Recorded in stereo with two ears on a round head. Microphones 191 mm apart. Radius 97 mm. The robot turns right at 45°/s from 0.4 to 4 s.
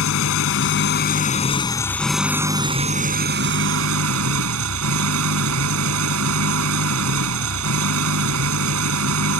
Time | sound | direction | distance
0.0 | an engine running | 100° left | ?